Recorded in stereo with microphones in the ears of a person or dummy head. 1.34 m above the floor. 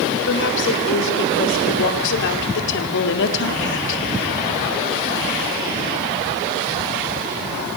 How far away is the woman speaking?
About 6 m.